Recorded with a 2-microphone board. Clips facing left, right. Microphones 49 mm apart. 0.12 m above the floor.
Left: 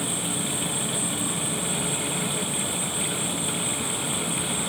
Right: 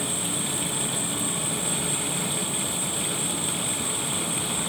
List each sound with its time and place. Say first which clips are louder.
0.0 s an insect: left 1 dB; 35° right (ahead or behind), 2.5 m